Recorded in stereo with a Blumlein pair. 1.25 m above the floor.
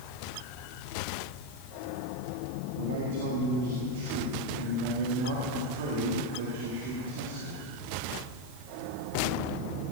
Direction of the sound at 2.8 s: 50° right.